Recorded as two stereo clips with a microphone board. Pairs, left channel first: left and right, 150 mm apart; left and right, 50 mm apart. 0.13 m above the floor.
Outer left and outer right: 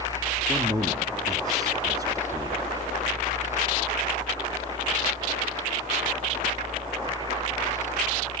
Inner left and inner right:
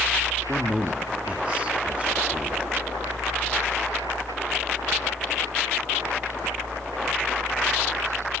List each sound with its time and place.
0.5 s a man speaking: 25° right (ahead or behind), 1.2 m